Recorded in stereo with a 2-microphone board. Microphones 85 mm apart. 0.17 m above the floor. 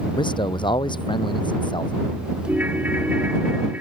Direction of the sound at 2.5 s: 20° right (ahead or behind).